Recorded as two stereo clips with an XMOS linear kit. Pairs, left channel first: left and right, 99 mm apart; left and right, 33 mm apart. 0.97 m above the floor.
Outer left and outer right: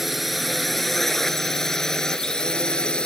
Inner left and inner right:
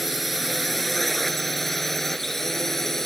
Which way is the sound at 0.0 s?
Centre (ahead or behind).